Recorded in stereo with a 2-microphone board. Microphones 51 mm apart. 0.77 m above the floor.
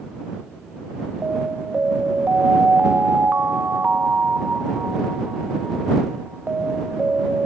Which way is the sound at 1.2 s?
35° right (ahead or behind).